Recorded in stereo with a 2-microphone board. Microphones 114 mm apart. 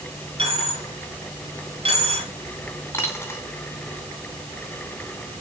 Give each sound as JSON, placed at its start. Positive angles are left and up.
{"t": 0.4, "sound": "a dropped coin", "side_deg": -55, "distance_m": 4.5}
{"t": 2.9, "sound": "a dropped coin", "side_deg": 20, "distance_m": 3.5}